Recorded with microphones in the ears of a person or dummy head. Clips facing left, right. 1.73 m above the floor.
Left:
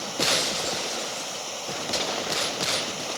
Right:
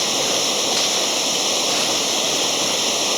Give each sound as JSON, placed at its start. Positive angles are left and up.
{"t": 0.0, "sound": "running water", "side_deg": -85}